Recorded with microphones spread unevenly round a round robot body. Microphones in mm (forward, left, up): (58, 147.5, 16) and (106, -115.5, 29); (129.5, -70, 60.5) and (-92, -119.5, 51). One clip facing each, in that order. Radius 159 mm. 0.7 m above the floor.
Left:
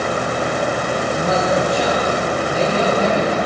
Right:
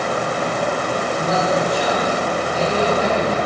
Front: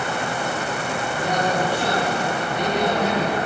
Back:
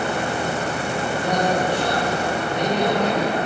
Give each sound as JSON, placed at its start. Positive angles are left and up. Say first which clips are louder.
{"t": 1.1, "sound": "a man speaking", "louder": "left 2 dB, back 1 dB", "azimuth_deg": 95, "distance_m": 5.0}